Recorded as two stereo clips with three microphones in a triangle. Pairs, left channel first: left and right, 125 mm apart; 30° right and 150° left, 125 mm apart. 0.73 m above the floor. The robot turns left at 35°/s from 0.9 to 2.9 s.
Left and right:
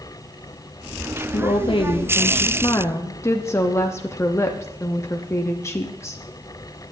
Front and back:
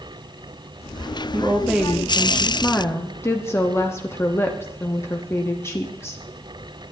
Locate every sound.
1.3 s a woman speaking: 85° left, 0.9 m; by 6.2 s 30° left, 0.9 m